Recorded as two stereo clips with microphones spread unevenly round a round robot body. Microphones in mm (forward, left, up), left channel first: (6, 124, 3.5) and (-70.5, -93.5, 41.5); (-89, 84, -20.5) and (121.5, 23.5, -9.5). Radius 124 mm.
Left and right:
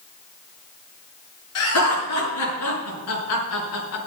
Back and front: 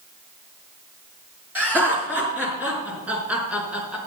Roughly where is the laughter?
Ahead left.